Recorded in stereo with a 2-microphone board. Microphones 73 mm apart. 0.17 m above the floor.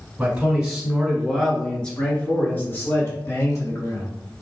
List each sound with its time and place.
0.2 s a man speaking: 20° right (ahead or behind), 1.6 m; by 4.1 s 50° left (ahead or behind), 1.8 m